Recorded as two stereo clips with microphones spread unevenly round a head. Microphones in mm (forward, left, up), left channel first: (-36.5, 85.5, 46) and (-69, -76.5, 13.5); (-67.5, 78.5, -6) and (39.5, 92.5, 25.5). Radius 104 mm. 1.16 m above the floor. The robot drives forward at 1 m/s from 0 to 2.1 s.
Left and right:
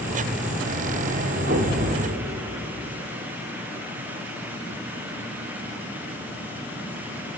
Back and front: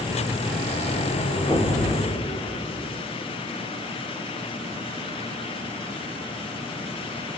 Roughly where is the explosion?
Right.